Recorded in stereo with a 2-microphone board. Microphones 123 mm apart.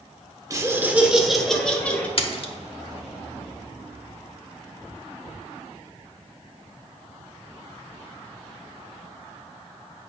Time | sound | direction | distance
0.5 | laughter | 25° right (ahead or behind) | 1.1 m
2.2 | a splash | 50° left (ahead or behind) | 1.0 m